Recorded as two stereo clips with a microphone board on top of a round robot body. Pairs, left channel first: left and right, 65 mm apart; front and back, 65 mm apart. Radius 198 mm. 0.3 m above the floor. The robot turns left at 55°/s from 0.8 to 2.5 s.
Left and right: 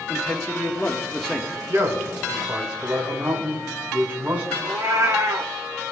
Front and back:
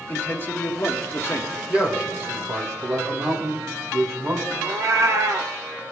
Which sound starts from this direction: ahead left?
A man speaking, at 0.1 s.